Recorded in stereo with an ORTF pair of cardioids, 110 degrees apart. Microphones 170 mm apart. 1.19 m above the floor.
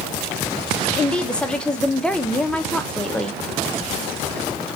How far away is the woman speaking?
About 0.6 m.